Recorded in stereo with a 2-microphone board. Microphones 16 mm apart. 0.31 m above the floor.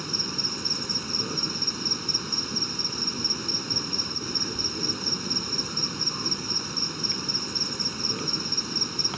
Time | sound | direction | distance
0.0 | an insect | 10° right (ahead or behind) | ?